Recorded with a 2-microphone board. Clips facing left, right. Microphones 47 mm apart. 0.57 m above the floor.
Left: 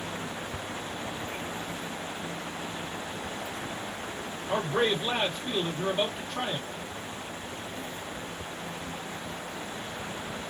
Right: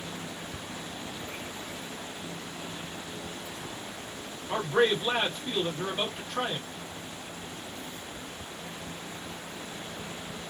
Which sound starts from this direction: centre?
A man speaking, at 4.5 s.